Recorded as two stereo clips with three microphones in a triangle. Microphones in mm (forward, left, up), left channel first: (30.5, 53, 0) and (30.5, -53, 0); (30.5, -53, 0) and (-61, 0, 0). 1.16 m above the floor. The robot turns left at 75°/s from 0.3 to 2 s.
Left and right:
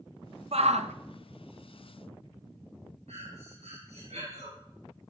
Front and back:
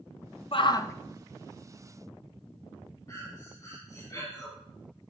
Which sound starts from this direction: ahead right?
A shout, at 0.5 s.